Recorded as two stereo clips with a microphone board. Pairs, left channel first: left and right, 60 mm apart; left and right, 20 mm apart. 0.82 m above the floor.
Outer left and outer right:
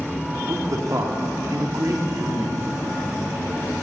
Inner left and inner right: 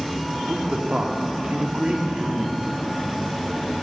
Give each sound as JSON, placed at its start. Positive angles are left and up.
{"t": 0.5, "sound": "a man speaking", "side_deg": -60, "distance_m": 2.0}